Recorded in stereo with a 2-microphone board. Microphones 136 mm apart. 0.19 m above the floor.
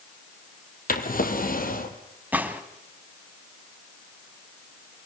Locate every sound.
0.9 s a drawer: 75° left (ahead or behind), 1.9 m
2.3 s a gunshot: 10° right (ahead or behind), 1.4 m